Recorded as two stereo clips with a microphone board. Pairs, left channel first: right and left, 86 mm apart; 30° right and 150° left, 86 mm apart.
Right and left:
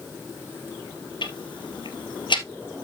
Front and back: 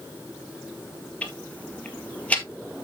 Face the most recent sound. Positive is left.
turn(degrees=-105)